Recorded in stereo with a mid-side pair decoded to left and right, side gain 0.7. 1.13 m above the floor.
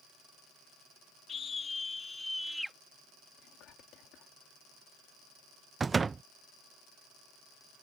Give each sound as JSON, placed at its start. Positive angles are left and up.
{"t": 1.3, "sound": "a scream", "azimuth_deg": 35}
{"t": 3.4, "sound": "whispering", "azimuth_deg": 60}
{"t": 5.8, "sound": "a door slam", "azimuth_deg": -20}